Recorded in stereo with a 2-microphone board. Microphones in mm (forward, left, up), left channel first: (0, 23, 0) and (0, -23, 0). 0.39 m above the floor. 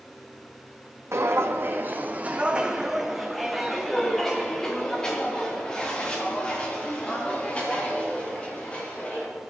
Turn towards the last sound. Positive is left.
turn(degrees=30)  # may be behind; listen again after turning